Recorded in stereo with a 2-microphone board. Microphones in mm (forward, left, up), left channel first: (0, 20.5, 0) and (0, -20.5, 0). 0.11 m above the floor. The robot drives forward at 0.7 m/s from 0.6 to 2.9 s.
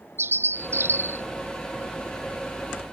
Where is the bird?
60° right (ahead or behind); by 1.2 s 70° right (ahead or behind).